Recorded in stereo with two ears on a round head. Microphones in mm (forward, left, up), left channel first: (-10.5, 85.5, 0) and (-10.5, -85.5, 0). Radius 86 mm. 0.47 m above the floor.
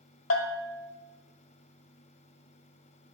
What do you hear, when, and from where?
0.3 s a bell: 80° left, 1.0 m